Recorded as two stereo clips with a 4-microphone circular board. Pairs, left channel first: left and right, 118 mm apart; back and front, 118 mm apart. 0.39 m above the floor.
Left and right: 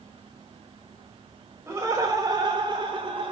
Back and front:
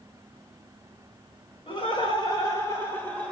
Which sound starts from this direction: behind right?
Laughter, at 1.7 s.